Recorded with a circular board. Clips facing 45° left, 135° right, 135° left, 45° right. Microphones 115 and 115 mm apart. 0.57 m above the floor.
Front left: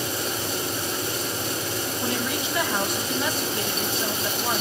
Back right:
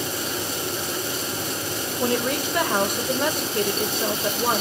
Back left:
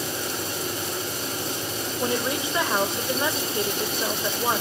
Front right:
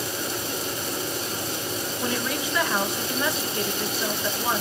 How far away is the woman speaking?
About 2.5 m.